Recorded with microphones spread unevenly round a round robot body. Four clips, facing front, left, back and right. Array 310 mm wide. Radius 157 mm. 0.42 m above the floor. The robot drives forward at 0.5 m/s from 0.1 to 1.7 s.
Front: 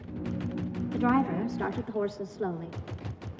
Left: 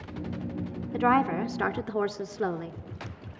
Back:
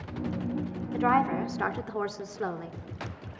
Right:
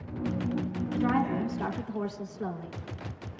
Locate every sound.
0.9 s a woman speaking: 75° left, 1.5 m; by 2.7 s 100° left, 1.4 m